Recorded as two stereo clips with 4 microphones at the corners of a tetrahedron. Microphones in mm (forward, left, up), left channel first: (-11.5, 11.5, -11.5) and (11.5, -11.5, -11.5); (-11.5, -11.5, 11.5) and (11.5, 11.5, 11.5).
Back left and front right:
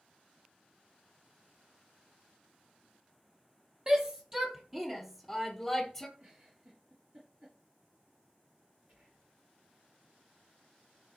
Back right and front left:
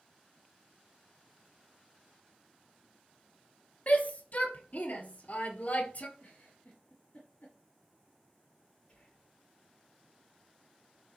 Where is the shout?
110° right, 3 m; by 6.1 s 145° right, 2.5 m.